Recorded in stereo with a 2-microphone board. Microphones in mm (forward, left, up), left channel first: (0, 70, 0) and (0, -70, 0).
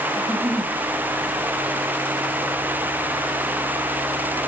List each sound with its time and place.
0.2 s a giggle: 10° right (ahead or behind), 6 m